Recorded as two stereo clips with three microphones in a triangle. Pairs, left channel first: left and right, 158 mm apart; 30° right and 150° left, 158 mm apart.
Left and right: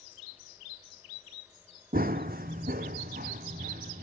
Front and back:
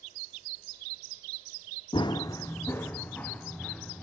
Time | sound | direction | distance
1.9 | running footsteps | 85° right | 0.8 m